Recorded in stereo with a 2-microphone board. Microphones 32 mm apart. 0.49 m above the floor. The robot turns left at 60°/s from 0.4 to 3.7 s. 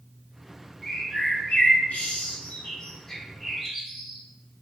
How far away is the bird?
About 1.9 m.